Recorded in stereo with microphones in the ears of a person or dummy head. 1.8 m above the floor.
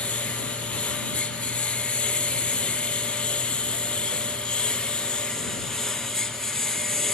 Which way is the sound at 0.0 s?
10° left (ahead or behind).